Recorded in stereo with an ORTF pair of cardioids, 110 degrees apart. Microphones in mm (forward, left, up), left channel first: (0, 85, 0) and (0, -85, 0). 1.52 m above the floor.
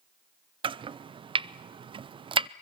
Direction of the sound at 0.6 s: 30° right.